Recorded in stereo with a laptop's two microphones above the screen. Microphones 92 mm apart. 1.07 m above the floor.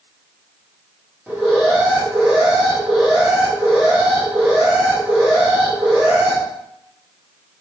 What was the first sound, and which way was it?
An alarm, 15° right (ahead or behind).